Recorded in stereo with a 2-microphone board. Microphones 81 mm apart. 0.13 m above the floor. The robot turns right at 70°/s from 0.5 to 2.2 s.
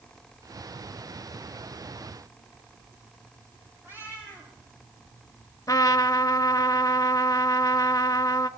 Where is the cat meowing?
30° right (ahead or behind), 9.5 m.